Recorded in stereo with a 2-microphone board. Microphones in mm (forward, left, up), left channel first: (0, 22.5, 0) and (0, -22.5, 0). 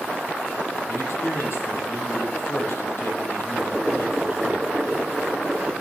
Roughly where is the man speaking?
Left.